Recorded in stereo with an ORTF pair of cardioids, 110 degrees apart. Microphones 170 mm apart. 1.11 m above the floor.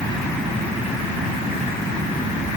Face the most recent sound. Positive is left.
No sound to turn to.